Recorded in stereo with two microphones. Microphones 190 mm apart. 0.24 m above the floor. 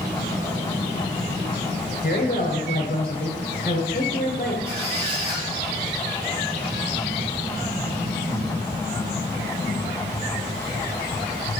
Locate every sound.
2.0 s a woman speaking: 50° left (ahead or behind), 3 m
4.7 s a squeak: 30° right (ahead or behind), 4 m